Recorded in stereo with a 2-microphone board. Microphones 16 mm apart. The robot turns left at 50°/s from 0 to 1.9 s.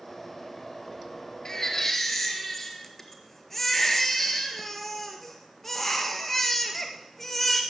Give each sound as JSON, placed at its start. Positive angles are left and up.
{"t": 1.4, "sound": "a baby crying", "side_deg": 40, "distance_m": 1.8}